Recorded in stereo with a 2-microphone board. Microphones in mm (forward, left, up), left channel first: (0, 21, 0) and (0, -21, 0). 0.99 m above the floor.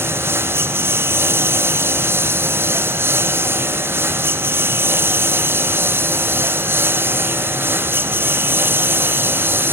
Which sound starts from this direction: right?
A lawn mower, at 0.0 s.